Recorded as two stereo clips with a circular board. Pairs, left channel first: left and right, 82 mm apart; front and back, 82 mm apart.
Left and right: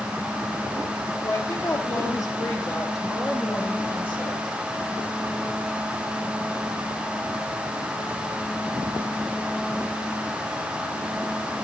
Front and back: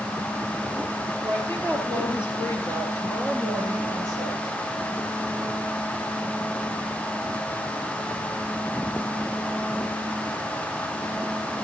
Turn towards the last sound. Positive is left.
turn(degrees=25)